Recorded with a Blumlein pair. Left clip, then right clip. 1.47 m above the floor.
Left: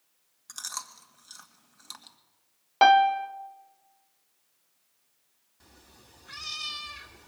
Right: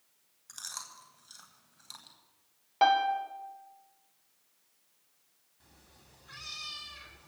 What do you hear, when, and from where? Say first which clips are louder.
0.5 s chewing: left 5 dB; 20° left, 2.0 m
2.8 s a piano: left 7 dB; 25° left, 0.9 m
5.6 s a cat meowing: left 5 dB; 20° left, 2 m